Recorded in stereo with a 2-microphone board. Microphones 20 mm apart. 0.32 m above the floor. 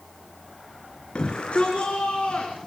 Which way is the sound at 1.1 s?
75° left (ahead or behind).